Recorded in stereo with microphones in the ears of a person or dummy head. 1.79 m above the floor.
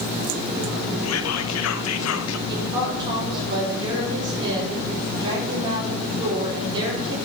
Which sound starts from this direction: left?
Whispering, at 1.0 s.